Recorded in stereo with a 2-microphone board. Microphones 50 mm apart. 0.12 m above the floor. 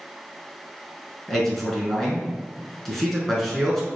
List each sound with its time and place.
1.3 s a man speaking: 5° left (ahead or behind), 1.2 m